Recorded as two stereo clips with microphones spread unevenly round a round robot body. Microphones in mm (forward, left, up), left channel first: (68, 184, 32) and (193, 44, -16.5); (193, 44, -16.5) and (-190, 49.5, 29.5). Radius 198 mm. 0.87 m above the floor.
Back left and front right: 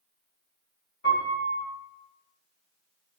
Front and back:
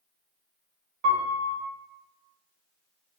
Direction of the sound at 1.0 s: 170° right.